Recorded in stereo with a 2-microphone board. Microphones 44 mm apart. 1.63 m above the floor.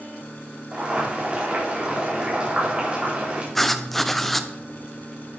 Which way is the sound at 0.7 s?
25° right (ahead or behind).